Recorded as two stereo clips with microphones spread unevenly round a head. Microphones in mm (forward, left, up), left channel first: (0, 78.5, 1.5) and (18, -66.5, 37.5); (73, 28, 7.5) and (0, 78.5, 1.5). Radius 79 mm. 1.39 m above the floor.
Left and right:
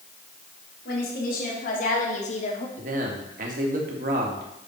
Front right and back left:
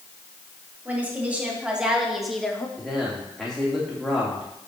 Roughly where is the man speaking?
Behind right.